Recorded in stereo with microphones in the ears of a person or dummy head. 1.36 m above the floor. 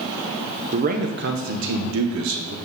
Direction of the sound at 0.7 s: 40° right (ahead or behind).